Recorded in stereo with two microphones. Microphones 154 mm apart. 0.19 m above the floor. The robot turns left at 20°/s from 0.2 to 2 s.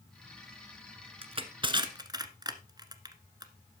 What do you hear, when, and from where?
1.2 s crushing: 40° right (ahead or behind), 1.1 m; by 3.5 s 25° right (ahead or behind), 1.1 m